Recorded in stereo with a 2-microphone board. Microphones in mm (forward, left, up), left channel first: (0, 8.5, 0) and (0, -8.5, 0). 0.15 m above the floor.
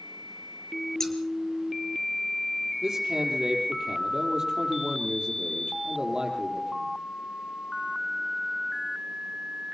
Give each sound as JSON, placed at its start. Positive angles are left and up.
{"t": 1.0, "sound": "scissors", "side_deg": 25, "distance_m": 3.0}
{"t": 2.8, "sound": "a man speaking", "side_deg": -30, "distance_m": 4.5}